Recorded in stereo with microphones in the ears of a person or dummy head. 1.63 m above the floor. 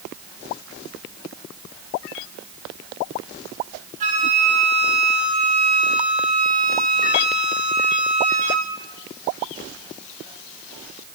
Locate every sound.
4.0 s a flute: 35° right (ahead or behind), 1.3 m